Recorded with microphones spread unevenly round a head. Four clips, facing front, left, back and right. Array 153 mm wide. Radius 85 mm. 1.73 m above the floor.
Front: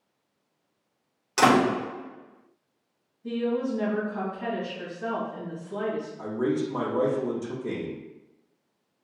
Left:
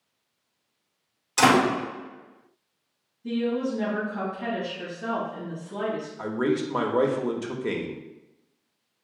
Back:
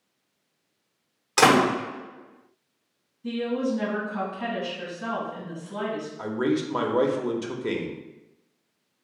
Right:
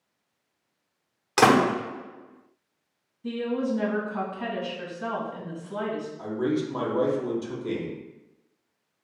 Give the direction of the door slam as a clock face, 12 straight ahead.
3 o'clock.